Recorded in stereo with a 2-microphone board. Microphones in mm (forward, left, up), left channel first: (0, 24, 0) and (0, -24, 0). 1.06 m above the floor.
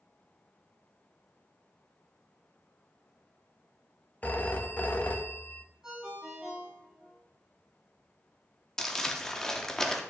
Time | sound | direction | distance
4.2 | a phone ringing | 30° left (ahead or behind) | 0.5 m
5.8 | a ringtone | 10° right (ahead or behind) | 3 m
8.8 | crumpling | 10° left (ahead or behind) | 0.7 m